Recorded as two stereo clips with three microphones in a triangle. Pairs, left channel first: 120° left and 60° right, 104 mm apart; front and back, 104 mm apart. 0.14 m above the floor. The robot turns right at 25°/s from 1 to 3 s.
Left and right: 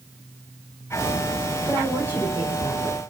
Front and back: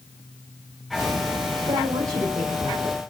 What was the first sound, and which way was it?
A woman speaking, 140° right.